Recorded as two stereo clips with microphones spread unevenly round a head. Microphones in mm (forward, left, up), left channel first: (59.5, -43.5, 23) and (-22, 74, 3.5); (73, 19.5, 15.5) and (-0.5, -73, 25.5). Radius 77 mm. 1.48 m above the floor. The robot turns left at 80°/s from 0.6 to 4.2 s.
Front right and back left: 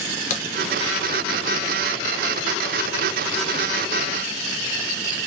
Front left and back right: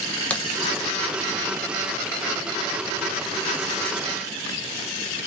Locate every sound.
0.3 s a crack: 30° right, 0.7 m